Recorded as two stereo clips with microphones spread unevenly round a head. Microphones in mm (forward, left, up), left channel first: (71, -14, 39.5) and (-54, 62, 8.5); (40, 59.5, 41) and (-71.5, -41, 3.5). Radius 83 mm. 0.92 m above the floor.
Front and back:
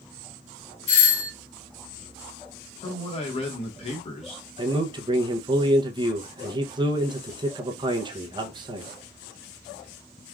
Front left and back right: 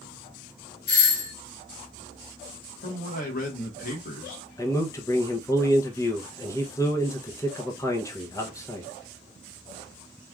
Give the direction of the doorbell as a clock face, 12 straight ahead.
11 o'clock.